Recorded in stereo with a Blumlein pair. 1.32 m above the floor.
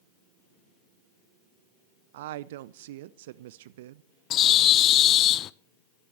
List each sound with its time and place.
2.1 s a woman speaking: 55° right, 0.6 m
4.3 s a bird: 30° left, 0.6 m